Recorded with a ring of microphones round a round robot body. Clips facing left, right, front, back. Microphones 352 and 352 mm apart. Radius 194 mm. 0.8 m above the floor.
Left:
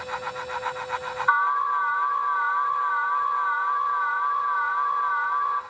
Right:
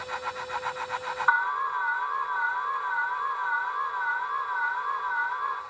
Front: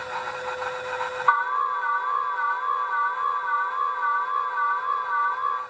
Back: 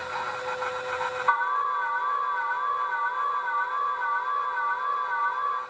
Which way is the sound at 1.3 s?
70° right.